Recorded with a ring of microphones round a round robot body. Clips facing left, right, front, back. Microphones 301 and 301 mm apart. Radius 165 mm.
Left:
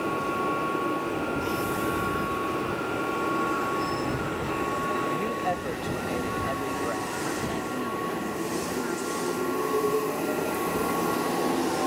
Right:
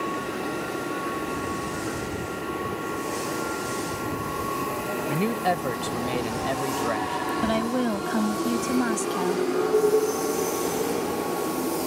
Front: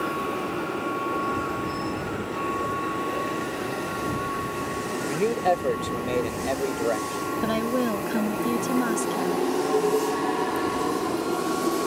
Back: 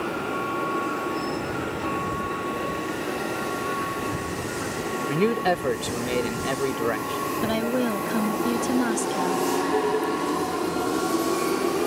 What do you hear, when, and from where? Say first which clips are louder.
5.1 s a man speaking: right 4 dB, back 1 dB; 120° right
7.4 s a woman speaking: right 6 dB, back 1 dB; 90° right